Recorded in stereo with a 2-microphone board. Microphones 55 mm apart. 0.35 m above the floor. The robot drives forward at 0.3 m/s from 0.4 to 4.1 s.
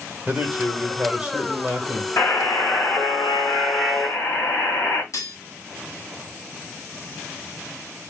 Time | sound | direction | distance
0.3 | a man speaking | 20° right (ahead or behind) | 1.1 m
2.2 | a buzzer | 50° left (ahead or behind) | 1.7 m
5.1 | cutlery clinking | 70° left (ahead or behind) | 1.3 m